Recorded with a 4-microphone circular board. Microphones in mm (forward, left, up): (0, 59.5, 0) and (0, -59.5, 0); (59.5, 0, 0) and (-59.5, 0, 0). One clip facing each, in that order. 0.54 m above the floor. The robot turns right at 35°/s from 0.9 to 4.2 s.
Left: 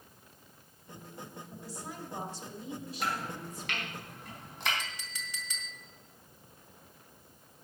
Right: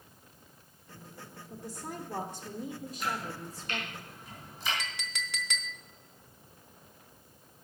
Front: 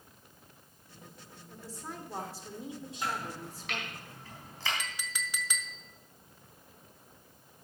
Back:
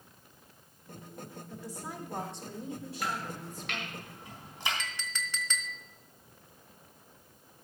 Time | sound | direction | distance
1.5 | a woman speaking | 115° right | 1.9 m
3.0 | chopping | 65° left | 3.5 m
4.8 | a clink | 80° right | 0.8 m